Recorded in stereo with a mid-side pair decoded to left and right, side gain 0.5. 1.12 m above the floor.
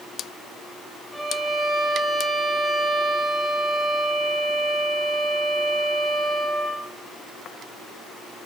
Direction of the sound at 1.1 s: 10° right.